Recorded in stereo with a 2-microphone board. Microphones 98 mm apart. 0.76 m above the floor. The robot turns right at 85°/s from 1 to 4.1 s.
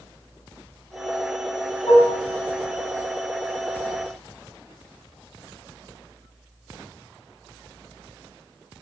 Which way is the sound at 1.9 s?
65° left (ahead or behind).